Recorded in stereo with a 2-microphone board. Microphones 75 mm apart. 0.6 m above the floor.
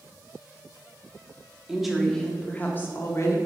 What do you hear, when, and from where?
1.7 s a woman speaking: 10° right (ahead or behind), 1.1 m; by 3.4 s 40° left (ahead or behind), 1.5 m